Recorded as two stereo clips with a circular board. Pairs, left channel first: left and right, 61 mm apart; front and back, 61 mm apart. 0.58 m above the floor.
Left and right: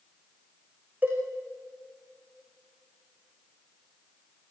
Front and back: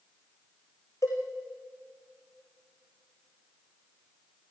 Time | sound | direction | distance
1.0 | a cowbell | 25° right | 7.5 m